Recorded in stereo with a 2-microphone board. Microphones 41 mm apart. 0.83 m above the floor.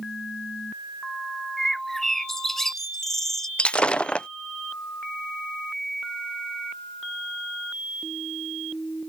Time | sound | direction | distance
1.6 | a bird | 5° left (ahead or behind) | ?
3.6 | breaking glass | 25° left (ahead or behind) | ?